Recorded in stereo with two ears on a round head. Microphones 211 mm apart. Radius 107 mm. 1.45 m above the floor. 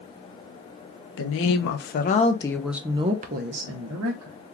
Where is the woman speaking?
55° left (ahead or behind), 0.9 m; by 4.4 s 60° right (ahead or behind), 1.0 m.